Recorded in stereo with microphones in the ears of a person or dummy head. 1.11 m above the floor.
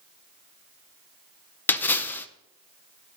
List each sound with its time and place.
1.7 s a splash: 10° left (ahead or behind), 0.7 m